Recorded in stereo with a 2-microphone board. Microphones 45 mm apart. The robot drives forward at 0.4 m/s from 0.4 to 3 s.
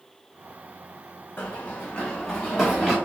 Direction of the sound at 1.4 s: 55° left (ahead or behind).